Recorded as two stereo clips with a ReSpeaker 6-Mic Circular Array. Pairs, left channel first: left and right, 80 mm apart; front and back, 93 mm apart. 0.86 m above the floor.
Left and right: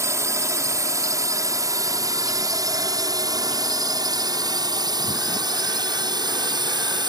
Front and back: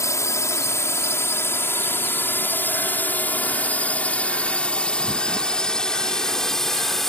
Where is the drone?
50° right; by 7.1 s 85° right.